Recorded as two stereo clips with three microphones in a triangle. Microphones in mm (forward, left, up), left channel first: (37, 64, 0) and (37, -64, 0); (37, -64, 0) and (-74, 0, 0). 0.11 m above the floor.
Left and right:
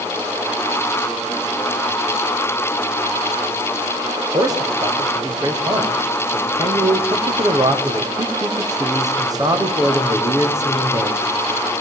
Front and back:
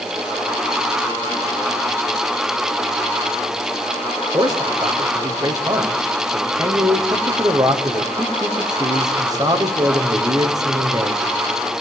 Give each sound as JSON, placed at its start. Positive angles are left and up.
{"t": 4.3, "sound": "a man speaking", "azimuth_deg": -150, "distance_m": 4.5}